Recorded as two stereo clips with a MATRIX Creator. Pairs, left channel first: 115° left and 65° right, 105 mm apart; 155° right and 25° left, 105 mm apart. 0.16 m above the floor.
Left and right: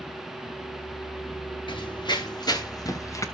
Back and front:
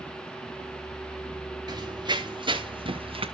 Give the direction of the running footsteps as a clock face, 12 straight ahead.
10 o'clock.